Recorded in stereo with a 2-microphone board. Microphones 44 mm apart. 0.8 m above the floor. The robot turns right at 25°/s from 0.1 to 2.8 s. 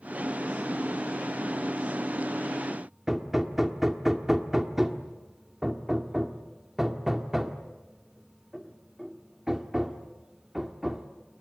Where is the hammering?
5° right (ahead or behind), 1.6 m.